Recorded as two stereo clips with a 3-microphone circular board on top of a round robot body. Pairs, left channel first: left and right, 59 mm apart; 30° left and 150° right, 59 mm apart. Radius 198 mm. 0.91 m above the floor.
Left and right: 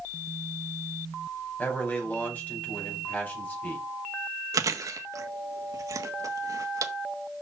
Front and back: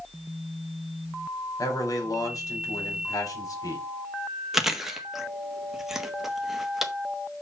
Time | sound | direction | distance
1.6 | a man speaking | 30° left | 5 m
4.5 | chewing | 65° right | 1.5 m